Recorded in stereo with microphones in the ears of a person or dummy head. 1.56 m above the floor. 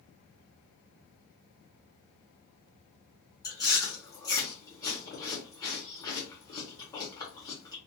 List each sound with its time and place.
3.4 s chewing: 25° left (ahead or behind), 0.9 m